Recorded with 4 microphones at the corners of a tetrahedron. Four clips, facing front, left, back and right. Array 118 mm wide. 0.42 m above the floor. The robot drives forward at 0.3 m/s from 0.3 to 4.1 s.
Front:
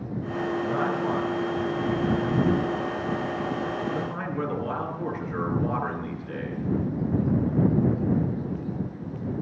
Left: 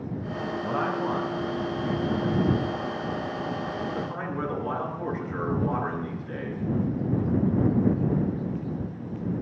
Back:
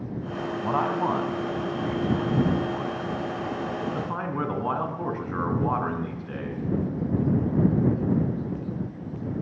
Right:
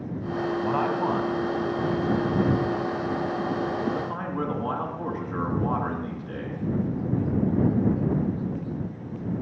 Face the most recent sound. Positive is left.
turn(degrees=-160)